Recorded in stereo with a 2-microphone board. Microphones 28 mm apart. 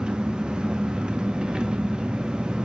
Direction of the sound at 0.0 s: 35° right (ahead or behind).